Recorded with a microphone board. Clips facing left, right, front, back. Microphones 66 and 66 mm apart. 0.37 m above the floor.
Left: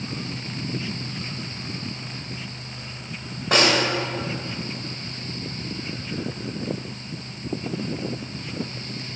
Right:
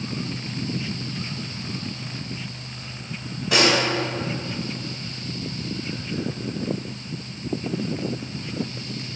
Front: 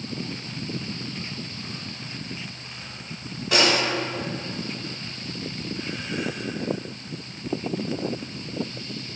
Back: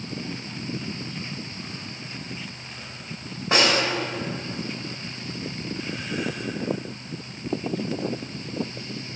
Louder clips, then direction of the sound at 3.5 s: Even, even; 125° left.